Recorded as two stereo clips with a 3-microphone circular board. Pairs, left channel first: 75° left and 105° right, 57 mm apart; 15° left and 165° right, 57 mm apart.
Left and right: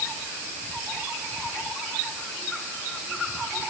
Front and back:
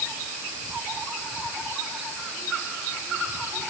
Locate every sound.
Only background noise.